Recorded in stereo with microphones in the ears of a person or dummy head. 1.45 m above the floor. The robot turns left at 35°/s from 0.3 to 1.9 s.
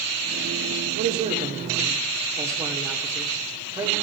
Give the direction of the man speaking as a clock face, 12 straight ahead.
4 o'clock.